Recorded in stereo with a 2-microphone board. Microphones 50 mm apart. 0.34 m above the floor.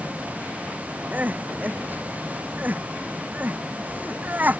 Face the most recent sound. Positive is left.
turn(degrees=-35)  # may be behind; listen again after turning